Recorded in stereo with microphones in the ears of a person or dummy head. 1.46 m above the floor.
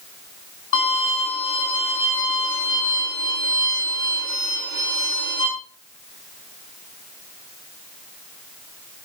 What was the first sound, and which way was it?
A violin, 50° left (ahead or behind).